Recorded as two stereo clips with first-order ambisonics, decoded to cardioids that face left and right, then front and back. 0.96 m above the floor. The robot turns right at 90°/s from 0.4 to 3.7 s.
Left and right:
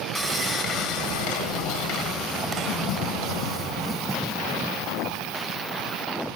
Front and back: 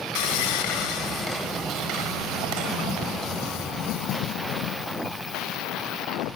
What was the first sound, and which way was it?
Sawing, straight ahead.